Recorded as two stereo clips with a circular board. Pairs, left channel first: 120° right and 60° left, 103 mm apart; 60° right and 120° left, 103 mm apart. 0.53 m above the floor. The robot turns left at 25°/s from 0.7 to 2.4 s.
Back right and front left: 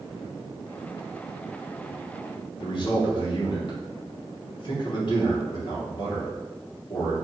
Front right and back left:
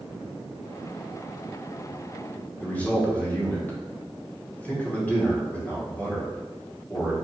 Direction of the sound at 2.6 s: 130° right.